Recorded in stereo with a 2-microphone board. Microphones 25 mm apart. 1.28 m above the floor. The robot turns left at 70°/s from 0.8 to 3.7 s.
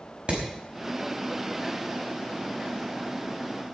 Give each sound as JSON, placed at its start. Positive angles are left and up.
{"t": 0.3, "sound": "hammering", "side_deg": -45, "distance_m": 5.0}